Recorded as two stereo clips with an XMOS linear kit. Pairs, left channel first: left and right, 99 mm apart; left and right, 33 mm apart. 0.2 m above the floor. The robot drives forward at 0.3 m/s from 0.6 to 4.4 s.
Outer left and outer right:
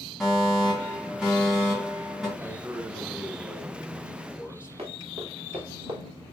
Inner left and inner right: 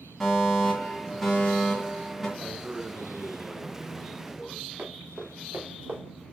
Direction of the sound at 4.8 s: 85° right.